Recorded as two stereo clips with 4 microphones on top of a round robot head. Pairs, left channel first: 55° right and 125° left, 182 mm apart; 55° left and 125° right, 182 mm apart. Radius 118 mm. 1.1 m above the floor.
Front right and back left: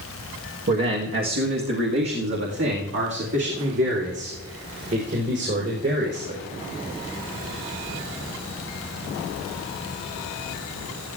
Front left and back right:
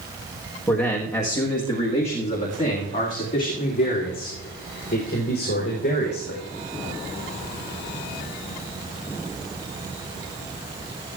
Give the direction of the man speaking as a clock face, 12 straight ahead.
7 o'clock.